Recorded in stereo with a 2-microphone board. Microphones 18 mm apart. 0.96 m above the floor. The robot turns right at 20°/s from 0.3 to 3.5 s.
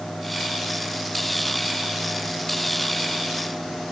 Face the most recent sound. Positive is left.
No sound to turn to.